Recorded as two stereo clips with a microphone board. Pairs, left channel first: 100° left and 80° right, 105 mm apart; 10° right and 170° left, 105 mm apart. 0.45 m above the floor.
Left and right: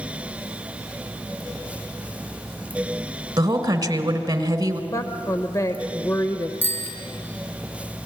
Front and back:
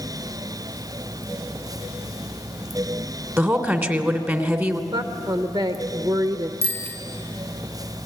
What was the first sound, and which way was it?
A woman speaking, 120° right.